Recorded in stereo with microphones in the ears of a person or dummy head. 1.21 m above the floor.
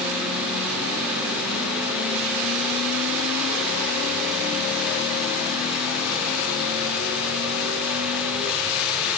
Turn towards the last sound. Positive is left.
No sound to turn to.